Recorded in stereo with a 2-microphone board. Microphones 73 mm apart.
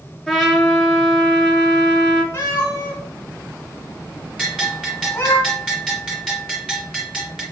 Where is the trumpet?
Centre (ahead or behind), 0.7 m.